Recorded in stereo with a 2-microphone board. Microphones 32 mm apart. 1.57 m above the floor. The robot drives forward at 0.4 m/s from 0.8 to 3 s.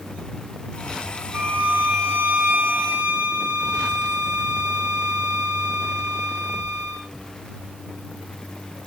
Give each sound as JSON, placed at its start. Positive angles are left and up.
{"t": 1.3, "sound": "a violin", "side_deg": -80, "distance_m": 1.4}